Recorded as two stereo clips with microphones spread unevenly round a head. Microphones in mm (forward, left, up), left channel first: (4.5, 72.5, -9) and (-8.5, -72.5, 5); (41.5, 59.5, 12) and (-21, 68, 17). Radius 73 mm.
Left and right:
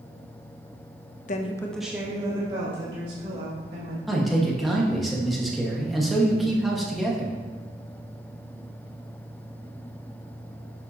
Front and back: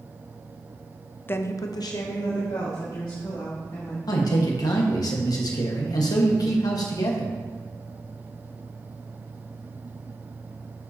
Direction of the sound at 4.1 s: 5° right.